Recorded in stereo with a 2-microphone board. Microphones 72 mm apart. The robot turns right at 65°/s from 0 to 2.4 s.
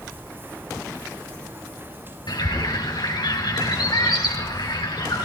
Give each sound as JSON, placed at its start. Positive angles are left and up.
{"t": 2.3, "sound": "a bird", "side_deg": 70, "distance_m": 3.0}